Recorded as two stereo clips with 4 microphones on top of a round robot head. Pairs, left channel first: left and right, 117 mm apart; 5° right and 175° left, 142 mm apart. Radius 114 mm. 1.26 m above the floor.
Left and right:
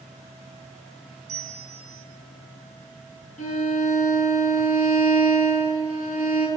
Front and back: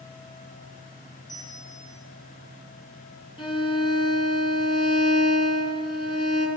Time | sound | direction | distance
1.3 | a bell | 75° right | 0.5 m
3.4 | a violin | 50° left | 3.5 m